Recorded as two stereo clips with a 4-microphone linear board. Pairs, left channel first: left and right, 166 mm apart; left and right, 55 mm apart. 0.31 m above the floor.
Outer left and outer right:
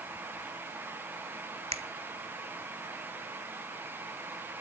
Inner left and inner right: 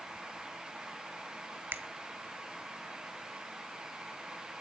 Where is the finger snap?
40° right (ahead or behind), 1.4 m.